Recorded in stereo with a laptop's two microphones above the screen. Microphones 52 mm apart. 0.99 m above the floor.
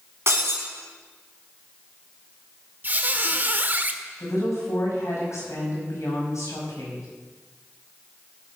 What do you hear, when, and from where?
0.3 s breaking glass: 55° right (ahead or behind), 3 m
2.8 s a squeak: 35° right (ahead or behind), 0.7 m
4.2 s a woman speaking: 75° left (ahead or behind), 5 m